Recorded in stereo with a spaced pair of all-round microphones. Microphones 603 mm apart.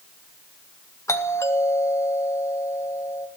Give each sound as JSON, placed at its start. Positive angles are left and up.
{"t": 1.1, "sound": "a doorbell", "side_deg": 5, "distance_m": 2.0}